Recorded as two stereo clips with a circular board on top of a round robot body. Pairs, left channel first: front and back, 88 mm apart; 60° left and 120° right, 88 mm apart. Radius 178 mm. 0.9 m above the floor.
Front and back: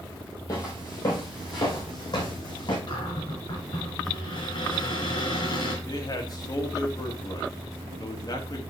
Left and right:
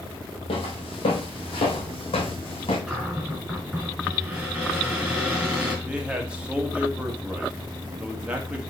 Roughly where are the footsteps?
Ahead left.